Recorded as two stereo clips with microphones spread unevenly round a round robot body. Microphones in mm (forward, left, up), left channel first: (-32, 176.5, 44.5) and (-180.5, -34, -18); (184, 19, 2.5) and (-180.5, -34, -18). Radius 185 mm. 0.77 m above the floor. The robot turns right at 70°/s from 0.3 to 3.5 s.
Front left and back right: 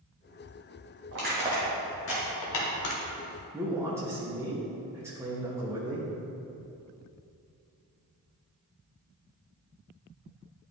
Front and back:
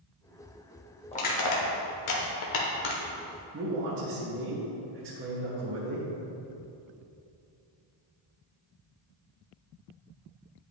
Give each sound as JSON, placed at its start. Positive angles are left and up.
{"t": 1.1, "sound": "crushing", "azimuth_deg": -70, "distance_m": 1.2}
{"t": 3.5, "sound": "a man speaking", "azimuth_deg": -170, "distance_m": 1.1}